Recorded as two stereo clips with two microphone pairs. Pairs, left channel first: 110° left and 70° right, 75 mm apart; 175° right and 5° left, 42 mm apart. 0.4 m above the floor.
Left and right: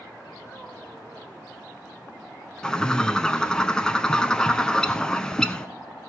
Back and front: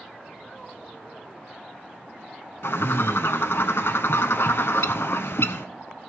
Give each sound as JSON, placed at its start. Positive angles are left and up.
{"t": 2.6, "sound": "a bird", "azimuth_deg": -170, "distance_m": 0.6}